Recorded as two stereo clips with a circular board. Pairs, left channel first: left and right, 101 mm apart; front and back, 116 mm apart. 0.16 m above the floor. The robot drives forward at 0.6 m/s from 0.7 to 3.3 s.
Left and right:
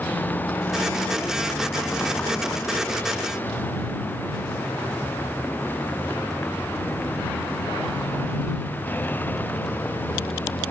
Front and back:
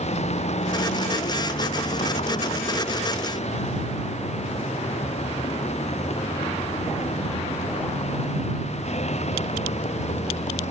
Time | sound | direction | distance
0.0 | a vehicle | 20° left | ?